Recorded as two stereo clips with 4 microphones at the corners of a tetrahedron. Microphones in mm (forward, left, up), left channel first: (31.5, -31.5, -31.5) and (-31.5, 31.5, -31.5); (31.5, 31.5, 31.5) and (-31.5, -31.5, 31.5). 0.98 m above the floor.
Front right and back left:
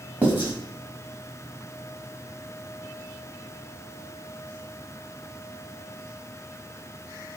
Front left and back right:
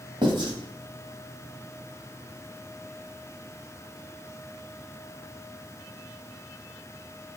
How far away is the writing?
About 1.6 m.